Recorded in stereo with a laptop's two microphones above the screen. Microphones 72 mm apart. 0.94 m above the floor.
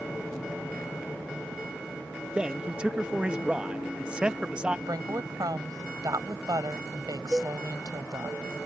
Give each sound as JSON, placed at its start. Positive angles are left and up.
{"t": 2.4, "sound": "a man speaking", "side_deg": -15}
{"t": 4.9, "sound": "a woman speaking", "side_deg": -60}
{"t": 7.3, "sound": "a cowbell", "side_deg": -25}